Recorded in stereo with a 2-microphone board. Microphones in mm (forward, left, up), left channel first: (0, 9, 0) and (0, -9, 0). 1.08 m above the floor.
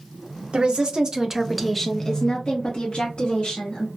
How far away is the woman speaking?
About 0.9 m.